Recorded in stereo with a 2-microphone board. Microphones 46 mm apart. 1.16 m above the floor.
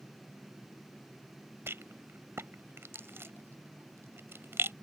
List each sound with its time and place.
1.7 s a rattle: 60° right (ahead or behind)